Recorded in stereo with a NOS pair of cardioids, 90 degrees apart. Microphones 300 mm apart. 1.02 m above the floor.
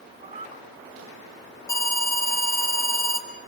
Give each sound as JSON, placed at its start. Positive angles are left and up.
{"t": 0.2, "sound": "a cat meowing", "azimuth_deg": -20, "distance_m": 4.5}
{"t": 1.7, "sound": "an alarm", "azimuth_deg": 10, "distance_m": 3.5}